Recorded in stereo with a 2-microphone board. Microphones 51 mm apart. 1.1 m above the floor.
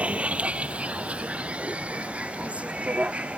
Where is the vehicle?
25° right (ahead or behind).